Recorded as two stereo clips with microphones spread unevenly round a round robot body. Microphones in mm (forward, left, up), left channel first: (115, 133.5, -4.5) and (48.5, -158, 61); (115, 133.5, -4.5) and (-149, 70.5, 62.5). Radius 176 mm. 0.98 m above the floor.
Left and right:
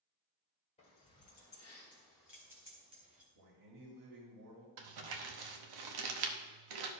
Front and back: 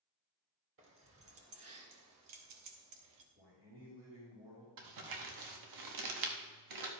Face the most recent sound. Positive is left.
turn(degrees=-135)